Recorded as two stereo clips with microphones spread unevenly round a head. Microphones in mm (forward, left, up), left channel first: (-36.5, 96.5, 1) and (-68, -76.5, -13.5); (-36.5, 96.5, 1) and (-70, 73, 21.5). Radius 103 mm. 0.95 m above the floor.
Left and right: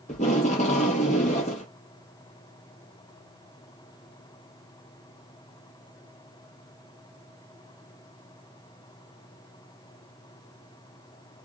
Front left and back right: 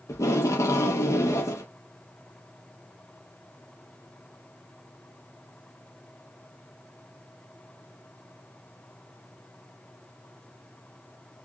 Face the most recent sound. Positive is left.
turn(degrees=20)